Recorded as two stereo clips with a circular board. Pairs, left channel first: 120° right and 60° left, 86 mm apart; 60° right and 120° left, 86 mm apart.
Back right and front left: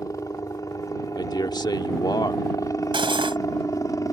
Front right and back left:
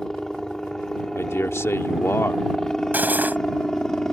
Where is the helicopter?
140° right.